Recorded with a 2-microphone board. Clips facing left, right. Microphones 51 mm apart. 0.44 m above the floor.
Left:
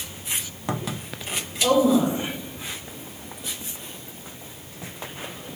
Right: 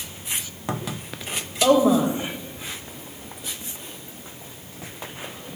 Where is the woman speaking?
60° right (ahead or behind), 1.7 m.